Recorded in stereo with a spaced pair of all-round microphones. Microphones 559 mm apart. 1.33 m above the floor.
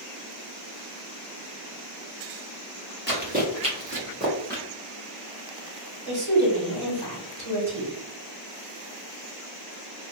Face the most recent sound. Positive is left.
turn(degrees=-65)  # may be behind; listen again after turning